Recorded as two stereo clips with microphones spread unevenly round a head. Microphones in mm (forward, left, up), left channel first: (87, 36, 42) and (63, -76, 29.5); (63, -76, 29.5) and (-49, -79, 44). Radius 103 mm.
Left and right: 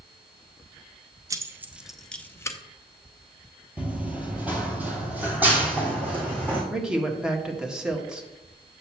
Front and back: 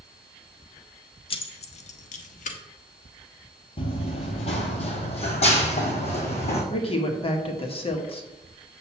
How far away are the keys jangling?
About 0.9 m.